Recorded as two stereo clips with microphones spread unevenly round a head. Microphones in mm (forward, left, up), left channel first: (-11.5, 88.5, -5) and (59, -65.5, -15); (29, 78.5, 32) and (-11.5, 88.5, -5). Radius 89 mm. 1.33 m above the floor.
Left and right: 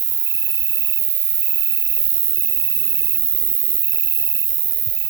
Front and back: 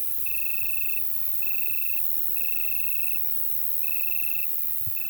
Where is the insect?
10° right.